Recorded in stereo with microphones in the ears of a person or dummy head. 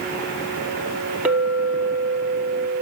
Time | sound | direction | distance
1.2 | a clink | 5° right (ahead or behind) | 1.8 m